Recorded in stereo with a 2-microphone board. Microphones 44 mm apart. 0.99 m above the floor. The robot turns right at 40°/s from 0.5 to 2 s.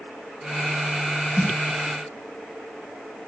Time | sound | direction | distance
1.4 | a snare drum | 30° left (ahead or behind) | 0.8 m